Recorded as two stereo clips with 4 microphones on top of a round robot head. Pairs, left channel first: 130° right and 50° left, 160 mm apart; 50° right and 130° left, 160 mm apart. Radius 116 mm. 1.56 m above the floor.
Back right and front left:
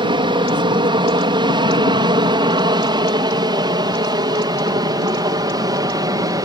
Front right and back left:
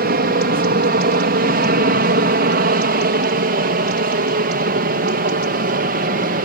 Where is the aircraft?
110° left; by 6.5 s 115° left.